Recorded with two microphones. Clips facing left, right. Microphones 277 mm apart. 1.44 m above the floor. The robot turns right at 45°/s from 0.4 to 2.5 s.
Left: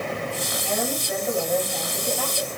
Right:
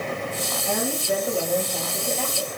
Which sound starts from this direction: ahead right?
A woman speaking, at 0.7 s.